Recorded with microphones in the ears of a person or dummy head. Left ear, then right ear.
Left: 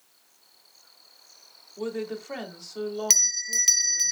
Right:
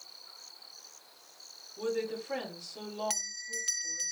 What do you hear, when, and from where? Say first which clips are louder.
1.8 s a woman speaking: left 1 dB; 30° left (ahead or behind), 3 m
3.1 s a bell: left 14 dB; 40° left (ahead or behind), 0.7 m